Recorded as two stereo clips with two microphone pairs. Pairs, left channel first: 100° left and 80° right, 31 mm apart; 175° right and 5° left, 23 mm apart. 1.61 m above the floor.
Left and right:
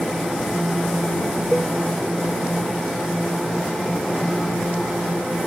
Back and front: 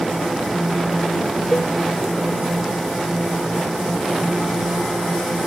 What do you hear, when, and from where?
1.5 s a cowbell: 145° right